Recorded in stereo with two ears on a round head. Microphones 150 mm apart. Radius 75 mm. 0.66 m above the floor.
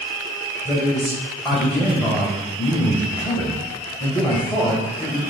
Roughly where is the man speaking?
Centre.